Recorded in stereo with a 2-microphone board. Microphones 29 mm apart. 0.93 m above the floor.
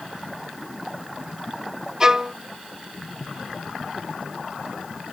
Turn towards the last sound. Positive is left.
turn(degrees=-20)  # may be behind; listen again after turning